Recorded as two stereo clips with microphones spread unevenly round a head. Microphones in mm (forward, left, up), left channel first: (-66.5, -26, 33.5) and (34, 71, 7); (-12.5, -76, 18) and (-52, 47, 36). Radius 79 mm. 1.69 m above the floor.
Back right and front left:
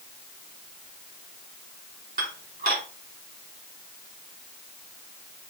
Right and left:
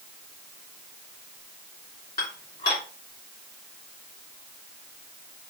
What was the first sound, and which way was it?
Dishes clattering, 5° right.